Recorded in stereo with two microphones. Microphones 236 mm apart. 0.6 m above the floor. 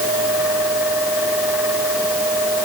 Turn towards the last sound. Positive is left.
No sound to turn to.